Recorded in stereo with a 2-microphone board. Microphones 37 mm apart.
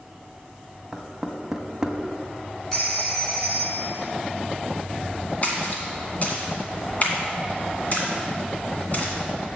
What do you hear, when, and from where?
0.9 s knocking: 15° right (ahead or behind), 0.7 m
2.7 s a phone ringing: 20° left (ahead or behind), 1.7 m
5.4 s a splash: 40° left (ahead or behind), 2 m